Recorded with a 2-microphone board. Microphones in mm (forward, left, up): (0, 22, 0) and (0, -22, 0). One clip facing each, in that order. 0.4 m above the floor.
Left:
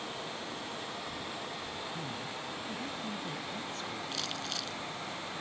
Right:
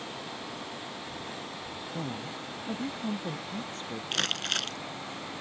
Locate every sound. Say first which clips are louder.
1.9 s a woman speaking: right 3 dB; 40° right (ahead or behind)
4.1 s crumpling: right 7 dB; 65° right (ahead or behind)